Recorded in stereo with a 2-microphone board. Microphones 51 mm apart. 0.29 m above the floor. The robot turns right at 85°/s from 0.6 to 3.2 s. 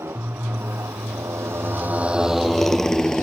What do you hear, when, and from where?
0.0 s a motorcycle: 55° right (ahead or behind); by 3.2 s 10° left (ahead or behind)